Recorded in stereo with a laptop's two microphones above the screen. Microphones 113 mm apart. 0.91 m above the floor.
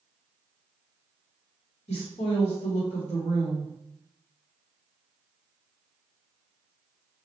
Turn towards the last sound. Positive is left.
turn(degrees=70)  # may be behind; listen again after turning